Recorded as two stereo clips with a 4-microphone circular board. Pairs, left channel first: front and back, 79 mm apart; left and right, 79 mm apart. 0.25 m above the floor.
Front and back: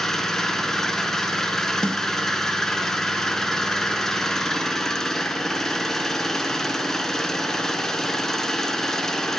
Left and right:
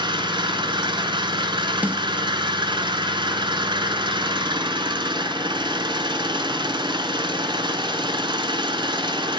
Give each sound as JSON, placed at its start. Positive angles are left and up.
{"t": 0.0, "sound": "an engine running", "azimuth_deg": -85, "distance_m": 1.0}
{"t": 1.8, "sound": "a snare drum", "azimuth_deg": -65, "distance_m": 0.6}